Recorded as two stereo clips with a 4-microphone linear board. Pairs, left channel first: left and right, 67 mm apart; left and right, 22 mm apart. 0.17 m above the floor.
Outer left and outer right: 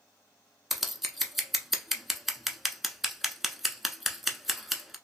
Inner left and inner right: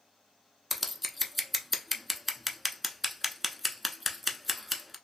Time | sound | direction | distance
0.7 | scissors | 5° right (ahead or behind) | 0.6 m